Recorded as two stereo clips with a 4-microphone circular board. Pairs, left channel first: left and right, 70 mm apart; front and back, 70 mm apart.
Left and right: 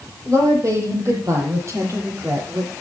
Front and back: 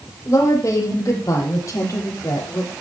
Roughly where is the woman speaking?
Ahead right.